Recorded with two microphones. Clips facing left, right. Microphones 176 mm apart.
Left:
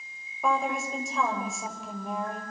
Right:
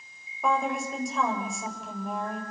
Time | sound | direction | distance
0.4 | a woman speaking | centre (ahead or behind) | 6.5 m